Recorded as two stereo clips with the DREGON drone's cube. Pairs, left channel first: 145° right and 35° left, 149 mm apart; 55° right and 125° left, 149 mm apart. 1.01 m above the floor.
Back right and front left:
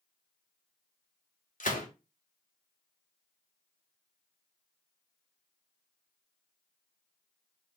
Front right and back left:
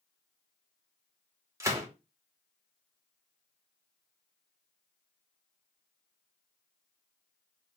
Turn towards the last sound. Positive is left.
turn(degrees=-165)